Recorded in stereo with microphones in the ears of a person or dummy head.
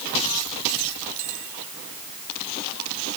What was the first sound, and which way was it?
Only background noise.